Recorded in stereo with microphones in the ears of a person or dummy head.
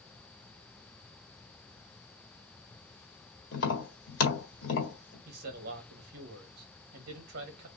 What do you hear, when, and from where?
3.5 s tapping: 65° left (ahead or behind), 1.7 m
5.2 s a man speaking: 50° right (ahead or behind), 1.2 m